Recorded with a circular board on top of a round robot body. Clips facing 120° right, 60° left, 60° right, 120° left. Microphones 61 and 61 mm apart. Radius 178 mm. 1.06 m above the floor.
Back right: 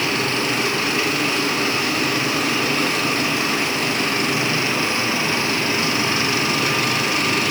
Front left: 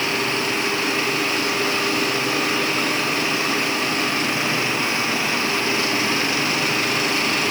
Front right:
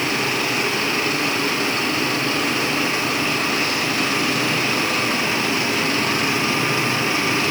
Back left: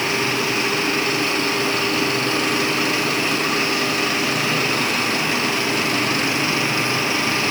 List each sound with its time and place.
Only background noise.